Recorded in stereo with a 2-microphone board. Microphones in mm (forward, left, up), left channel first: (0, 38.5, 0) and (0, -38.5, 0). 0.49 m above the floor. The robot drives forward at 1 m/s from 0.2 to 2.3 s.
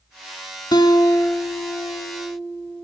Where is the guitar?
65° left (ahead or behind), 0.6 m; by 2.8 s 20° left (ahead or behind), 1.6 m.